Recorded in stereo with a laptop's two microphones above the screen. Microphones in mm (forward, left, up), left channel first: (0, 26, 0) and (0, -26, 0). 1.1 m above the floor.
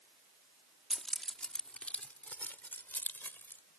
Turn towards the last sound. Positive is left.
turn(degrees=40)  # may be behind; listen again after turning